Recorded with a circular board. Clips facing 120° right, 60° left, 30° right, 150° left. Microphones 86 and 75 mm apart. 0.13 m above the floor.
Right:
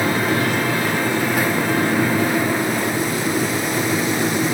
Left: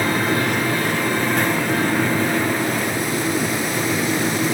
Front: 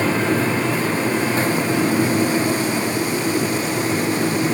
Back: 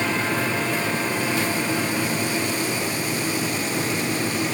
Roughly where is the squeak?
No squeak in this recording.